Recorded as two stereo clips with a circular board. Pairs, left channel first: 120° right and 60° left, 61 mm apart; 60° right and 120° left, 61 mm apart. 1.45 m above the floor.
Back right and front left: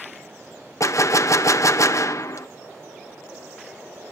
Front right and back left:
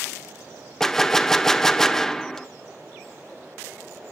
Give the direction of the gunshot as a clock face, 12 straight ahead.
5 o'clock.